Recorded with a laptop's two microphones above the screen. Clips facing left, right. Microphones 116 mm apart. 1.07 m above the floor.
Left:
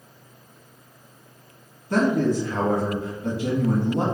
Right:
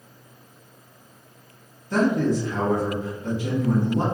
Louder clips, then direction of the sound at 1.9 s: Even; 60° left (ahead or behind).